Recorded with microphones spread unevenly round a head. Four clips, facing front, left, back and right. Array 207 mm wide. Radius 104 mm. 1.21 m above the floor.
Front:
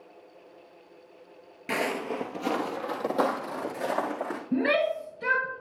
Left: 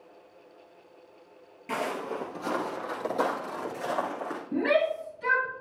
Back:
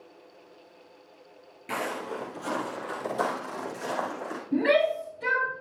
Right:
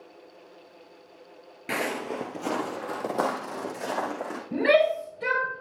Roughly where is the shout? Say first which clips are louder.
Right 4 dB, back 3 dB; ahead right.